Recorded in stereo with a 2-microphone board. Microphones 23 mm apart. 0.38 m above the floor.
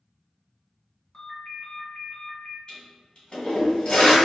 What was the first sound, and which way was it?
A ringtone, 35° left (ahead or behind).